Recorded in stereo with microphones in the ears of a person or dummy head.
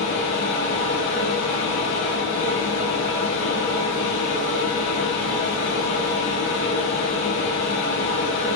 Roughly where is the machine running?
Left.